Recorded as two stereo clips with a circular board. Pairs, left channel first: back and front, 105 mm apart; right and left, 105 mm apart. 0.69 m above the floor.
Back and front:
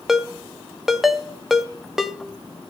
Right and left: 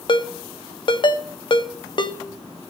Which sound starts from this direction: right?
A ringtone, at 0.1 s.